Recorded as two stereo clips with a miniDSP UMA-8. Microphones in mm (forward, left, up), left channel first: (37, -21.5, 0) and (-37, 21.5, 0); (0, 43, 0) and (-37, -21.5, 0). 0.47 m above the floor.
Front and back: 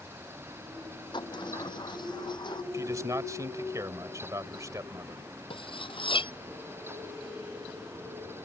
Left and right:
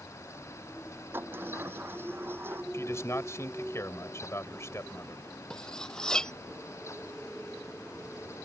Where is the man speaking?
105° left.